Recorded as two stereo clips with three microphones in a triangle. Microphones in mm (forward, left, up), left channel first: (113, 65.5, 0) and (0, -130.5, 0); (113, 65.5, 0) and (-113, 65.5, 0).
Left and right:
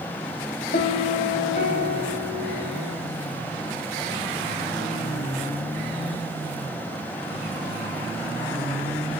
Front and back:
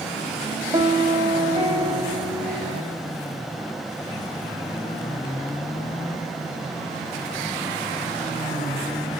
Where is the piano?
105° left, 0.5 m.